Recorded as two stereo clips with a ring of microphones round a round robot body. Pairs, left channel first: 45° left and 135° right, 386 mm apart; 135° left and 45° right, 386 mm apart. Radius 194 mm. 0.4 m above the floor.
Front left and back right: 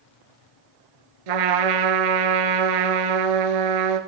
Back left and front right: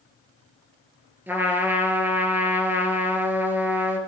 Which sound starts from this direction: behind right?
A trumpet, at 1.3 s.